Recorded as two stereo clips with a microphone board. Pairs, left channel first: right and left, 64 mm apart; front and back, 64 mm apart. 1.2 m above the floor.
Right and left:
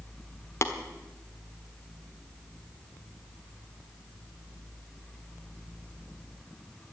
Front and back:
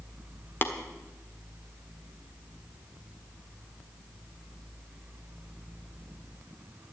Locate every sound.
0.6 s tapping: 50° right, 1.3 m